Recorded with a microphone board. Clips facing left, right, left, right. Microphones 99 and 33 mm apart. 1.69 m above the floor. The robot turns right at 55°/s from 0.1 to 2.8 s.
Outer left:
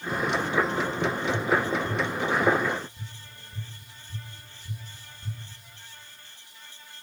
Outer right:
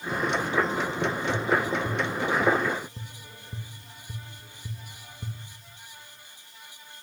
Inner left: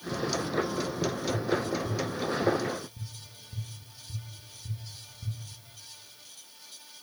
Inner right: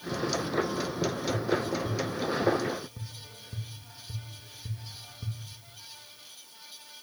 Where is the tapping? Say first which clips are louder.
Even, even; 10° right (ahead or behind), 3 m; by 5.4 s 90° right, 3 m.